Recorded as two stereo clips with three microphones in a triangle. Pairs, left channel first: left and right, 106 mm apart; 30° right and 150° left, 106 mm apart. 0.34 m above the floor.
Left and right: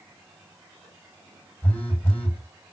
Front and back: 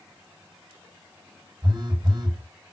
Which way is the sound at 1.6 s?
155° left.